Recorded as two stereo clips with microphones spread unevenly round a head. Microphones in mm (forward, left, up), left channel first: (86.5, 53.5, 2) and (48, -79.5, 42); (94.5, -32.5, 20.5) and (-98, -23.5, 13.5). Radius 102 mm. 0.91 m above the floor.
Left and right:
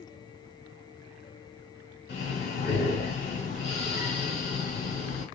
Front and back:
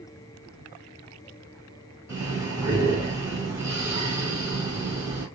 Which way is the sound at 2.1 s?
100° left.